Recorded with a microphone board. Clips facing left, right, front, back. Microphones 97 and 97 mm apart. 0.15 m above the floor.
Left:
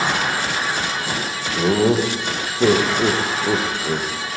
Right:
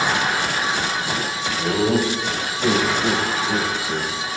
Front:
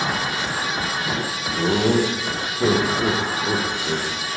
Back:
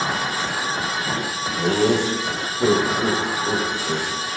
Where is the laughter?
85° left, 7.5 m.